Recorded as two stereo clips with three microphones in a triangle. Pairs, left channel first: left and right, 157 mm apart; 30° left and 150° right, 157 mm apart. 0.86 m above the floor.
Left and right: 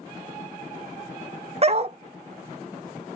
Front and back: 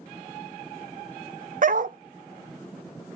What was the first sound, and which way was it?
A dog barking, 135° right.